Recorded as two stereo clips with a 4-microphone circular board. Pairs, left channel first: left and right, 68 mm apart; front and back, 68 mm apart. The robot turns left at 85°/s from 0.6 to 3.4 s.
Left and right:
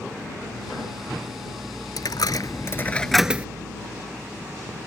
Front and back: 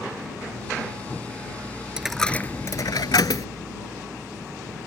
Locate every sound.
2.0 s a dropped coin: 100° left; by 3.5 s 20° right